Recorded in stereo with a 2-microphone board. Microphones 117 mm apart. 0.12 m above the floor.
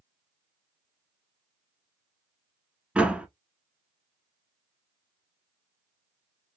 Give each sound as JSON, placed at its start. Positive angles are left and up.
{"t": 3.0, "sound": "a door slam", "side_deg": -10, "distance_m": 0.8}